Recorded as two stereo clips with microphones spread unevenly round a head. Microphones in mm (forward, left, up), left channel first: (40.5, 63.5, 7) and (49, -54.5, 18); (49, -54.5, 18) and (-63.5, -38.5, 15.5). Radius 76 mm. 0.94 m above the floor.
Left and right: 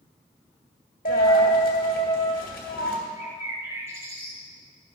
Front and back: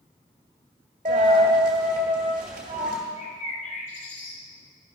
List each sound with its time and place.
1.1 s a dropped coin: 130° left, 1.4 m
3.2 s a bird: 15° right, 2.0 m